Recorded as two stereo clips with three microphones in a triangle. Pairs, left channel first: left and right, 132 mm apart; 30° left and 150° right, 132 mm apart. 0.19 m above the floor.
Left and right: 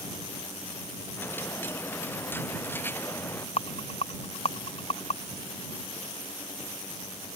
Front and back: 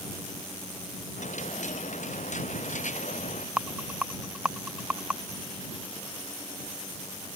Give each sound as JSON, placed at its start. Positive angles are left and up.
{"t": 1.2, "sound": "a dropped coin", "azimuth_deg": 15}
{"t": 3.6, "sound": "a rattle", "azimuth_deg": 130}